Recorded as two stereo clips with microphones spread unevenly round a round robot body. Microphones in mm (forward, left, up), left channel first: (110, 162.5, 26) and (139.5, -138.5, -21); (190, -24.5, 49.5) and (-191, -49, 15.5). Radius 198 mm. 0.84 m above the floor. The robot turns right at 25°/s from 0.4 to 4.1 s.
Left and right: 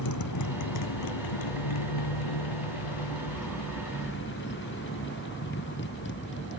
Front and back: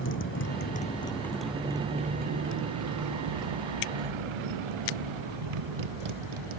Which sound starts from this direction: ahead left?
A motorcycle, at 0.0 s.